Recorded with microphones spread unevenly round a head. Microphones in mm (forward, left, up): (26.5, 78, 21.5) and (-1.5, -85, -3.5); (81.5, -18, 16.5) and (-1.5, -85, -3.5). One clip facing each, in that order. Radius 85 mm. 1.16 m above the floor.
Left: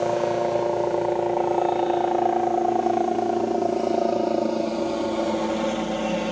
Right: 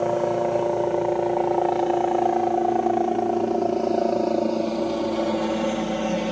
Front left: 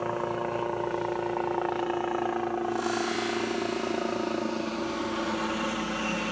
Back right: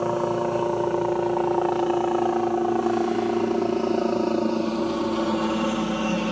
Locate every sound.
0.0 s a helicopter: 175° left